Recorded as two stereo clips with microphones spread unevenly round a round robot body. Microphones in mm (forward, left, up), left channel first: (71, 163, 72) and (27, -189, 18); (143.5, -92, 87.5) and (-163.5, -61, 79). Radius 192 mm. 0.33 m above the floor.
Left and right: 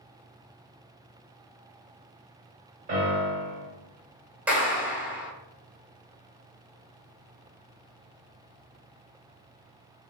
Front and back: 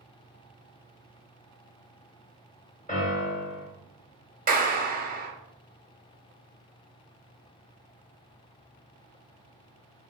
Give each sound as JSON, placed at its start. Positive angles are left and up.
{"t": 2.9, "sound": "a piano", "azimuth_deg": -60, "distance_m": 1.3}
{"t": 4.5, "sound": "a clap", "azimuth_deg": -160, "distance_m": 0.7}